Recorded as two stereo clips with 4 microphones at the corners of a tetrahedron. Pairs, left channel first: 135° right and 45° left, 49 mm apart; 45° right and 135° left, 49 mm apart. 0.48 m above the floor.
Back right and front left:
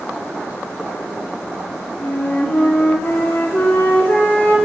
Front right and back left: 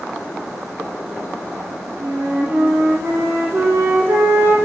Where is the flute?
170° left, 1.4 m.